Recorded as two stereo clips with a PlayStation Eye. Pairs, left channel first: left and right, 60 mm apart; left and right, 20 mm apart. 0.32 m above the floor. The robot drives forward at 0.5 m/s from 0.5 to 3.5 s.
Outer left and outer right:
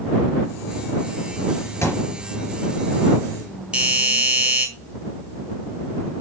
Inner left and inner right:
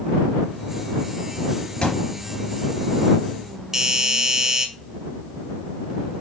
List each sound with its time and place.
1.8 s a thud: 55° left (ahead or behind), 2.5 m; by 2.2 s 60° left (ahead or behind), 2.5 m
3.7 s a doorbell: 20° right (ahead or behind), 1.5 m